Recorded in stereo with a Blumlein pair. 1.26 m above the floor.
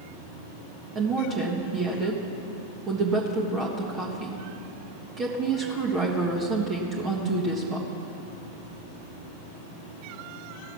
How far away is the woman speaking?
About 1.5 m.